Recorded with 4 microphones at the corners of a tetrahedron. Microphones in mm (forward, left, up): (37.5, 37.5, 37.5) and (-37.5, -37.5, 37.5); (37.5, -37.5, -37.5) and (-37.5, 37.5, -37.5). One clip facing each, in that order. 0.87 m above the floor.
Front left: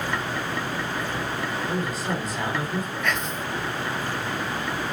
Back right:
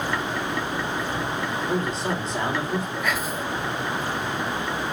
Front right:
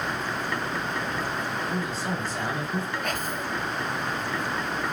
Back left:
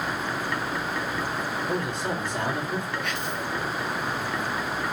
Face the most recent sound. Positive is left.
turn(degrees=-50)